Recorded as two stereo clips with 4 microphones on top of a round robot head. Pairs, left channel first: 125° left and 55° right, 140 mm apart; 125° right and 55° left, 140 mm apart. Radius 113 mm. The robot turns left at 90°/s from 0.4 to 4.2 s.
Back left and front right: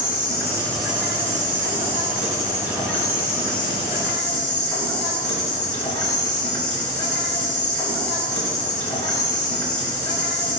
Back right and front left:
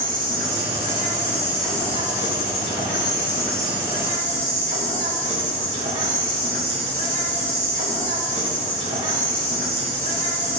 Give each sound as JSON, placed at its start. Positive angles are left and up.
{"t": 0.0, "sound": "an insect", "azimuth_deg": 75, "distance_m": 3.5}